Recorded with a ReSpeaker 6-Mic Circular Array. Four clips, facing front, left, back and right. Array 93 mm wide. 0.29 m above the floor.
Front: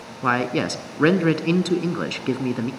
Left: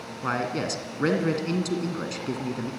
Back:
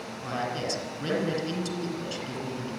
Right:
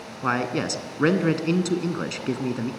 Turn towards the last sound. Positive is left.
turn(degrees=-20)